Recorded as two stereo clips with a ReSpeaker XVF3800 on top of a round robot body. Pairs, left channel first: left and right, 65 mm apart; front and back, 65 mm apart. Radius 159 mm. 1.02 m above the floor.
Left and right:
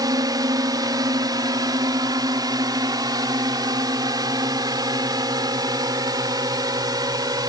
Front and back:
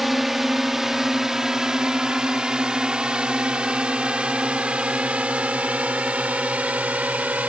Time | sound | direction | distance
0.0 | a drone | 95° right | ?